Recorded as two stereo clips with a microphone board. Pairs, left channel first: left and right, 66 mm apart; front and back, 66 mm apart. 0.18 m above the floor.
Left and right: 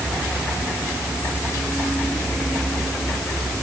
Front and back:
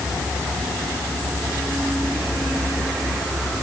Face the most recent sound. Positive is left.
No sound to turn to.